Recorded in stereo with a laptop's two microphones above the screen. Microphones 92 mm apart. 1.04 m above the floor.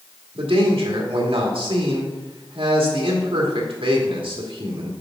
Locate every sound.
0.3 s a man speaking: 75° right (ahead or behind), 1.7 m